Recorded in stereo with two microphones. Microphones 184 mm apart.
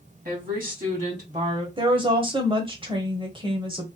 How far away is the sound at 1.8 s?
About 1.0 m.